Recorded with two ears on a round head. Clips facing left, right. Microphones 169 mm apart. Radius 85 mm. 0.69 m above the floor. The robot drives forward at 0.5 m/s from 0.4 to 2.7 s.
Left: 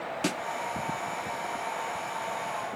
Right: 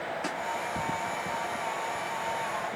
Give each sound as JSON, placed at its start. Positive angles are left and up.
{"t": 0.2, "sound": "a snare drum", "side_deg": 35}